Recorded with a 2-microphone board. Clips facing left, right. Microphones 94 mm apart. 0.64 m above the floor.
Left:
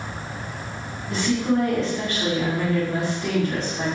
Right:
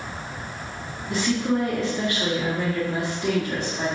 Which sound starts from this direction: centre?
A woman speaking, at 1.1 s.